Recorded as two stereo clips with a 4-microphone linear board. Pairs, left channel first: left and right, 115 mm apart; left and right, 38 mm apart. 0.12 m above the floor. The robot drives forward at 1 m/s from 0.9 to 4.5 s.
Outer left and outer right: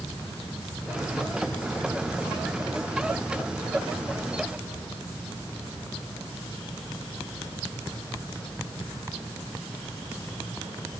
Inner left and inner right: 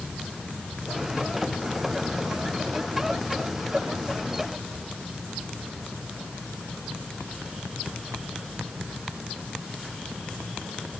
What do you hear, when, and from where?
Only background noise.